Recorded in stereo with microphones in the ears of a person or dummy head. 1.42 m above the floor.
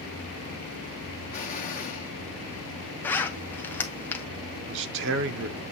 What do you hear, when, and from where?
1.3 s an explosion: 45° left (ahead or behind), 1.2 m
3.0 s a zipper: 10° left (ahead or behind), 0.5 m
4.7 s a man speaking: 60° right (ahead or behind), 0.7 m